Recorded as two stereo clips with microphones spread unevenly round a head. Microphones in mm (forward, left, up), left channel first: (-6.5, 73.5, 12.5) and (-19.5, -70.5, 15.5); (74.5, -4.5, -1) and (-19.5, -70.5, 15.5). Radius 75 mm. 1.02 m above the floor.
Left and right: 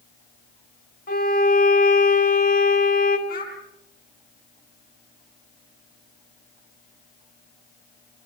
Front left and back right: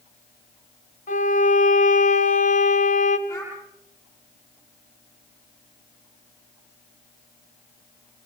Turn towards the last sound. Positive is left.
turn(degrees=110)